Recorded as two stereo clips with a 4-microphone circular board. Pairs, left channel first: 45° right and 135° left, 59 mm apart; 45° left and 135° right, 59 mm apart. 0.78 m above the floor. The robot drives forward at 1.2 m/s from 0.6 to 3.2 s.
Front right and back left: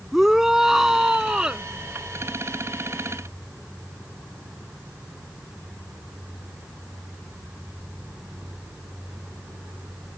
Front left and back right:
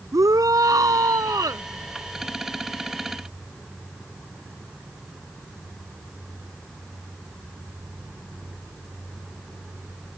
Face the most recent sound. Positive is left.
turn(degrees=-155)